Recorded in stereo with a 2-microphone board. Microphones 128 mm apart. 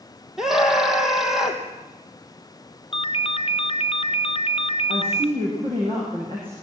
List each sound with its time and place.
0.4 s a scream: 5° right (ahead or behind), 4 m
2.9 s a ringtone: 50° left (ahead or behind), 0.6 m
4.9 s a woman speaking: 45° right (ahead or behind), 7.5 m